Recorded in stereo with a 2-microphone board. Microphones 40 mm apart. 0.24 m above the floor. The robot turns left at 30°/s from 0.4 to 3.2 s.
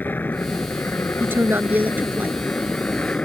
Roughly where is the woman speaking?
Right.